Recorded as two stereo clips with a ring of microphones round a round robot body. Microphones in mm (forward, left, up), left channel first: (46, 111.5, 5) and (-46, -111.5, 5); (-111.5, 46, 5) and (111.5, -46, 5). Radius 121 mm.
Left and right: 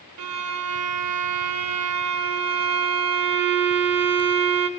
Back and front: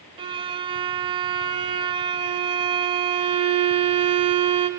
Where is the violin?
95° right, 0.6 m.